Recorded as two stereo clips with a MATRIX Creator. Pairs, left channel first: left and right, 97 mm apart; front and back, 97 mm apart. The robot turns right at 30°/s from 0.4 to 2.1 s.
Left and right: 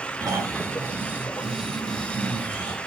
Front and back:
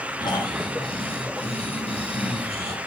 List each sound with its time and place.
0.2 s snoring: 40° right, 1.9 m; by 2.8 s 10° left, 1.9 m